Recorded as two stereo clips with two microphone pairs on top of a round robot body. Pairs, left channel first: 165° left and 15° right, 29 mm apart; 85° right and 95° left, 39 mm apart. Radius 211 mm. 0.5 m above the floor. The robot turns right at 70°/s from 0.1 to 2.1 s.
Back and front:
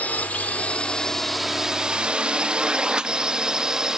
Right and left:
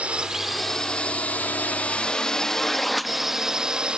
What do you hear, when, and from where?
0.0 s a drone: 155° left; by 4.0 s 40° left